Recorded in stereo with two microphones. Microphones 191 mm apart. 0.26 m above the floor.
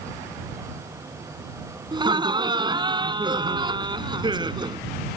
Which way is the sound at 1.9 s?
25° right (ahead or behind).